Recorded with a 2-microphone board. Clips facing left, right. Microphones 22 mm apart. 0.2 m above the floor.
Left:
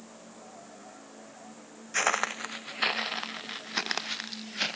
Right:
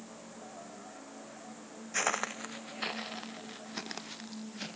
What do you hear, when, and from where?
1.9 s footsteps: 20° left (ahead or behind); by 4.8 s 50° left (ahead or behind)